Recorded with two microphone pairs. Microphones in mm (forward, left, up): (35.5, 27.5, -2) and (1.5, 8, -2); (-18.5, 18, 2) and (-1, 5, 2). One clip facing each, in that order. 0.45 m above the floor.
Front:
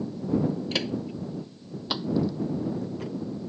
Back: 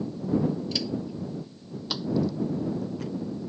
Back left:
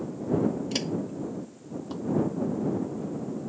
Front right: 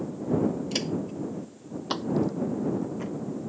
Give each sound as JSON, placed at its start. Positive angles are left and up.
{"t": 0.7, "sound": "footsteps", "azimuth_deg": 50}